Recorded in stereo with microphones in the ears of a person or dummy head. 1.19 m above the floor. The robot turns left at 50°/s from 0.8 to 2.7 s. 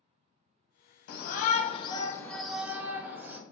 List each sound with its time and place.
1.1 s a shout: 70° left, 0.7 m; by 3.4 s 10° right, 0.7 m